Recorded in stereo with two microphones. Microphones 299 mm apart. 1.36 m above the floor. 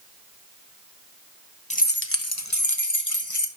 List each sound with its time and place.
1.7 s keys jangling: 25° left (ahead or behind), 0.9 m; by 3.5 s 80° left, 1.6 m